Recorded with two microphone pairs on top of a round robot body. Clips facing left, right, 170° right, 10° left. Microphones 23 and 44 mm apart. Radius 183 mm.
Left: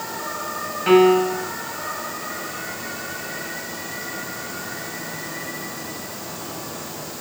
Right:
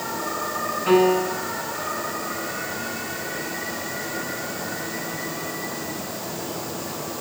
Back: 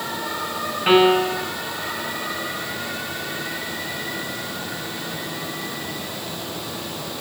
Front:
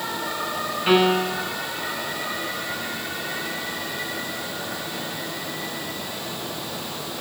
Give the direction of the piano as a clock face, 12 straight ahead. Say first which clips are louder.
Left 4 dB, back 4 dB; 7 o'clock.